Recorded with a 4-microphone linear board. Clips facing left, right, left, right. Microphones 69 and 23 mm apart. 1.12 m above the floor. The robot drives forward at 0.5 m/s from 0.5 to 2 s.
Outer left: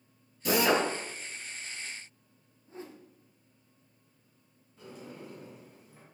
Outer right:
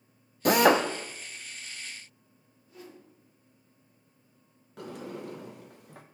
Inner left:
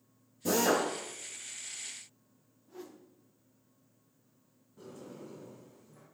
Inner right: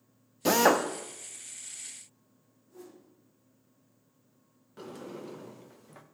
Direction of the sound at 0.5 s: 60° right (ahead or behind).